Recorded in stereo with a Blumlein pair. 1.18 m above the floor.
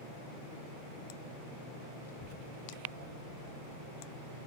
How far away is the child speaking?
About 1.4 m.